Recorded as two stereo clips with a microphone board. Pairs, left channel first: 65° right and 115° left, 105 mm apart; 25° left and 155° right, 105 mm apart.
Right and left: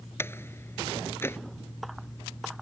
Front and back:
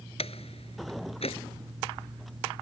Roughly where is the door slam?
Ahead.